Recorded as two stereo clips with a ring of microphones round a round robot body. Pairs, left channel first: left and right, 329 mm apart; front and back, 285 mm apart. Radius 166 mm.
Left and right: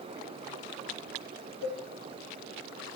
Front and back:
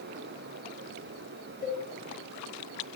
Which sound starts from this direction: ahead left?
A cowbell, at 1.6 s.